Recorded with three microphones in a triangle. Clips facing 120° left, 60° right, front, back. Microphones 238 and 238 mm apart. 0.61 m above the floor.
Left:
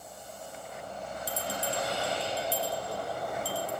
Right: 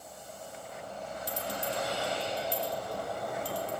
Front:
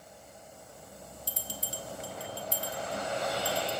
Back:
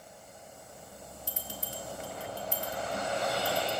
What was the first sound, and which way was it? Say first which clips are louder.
A bell: left 1 dB, even; 35° left.